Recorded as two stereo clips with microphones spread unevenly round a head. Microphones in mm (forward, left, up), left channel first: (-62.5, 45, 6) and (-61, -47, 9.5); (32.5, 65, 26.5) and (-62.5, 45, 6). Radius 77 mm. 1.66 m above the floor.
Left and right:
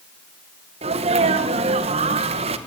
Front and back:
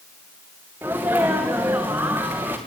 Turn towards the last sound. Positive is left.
turn(degrees=-90)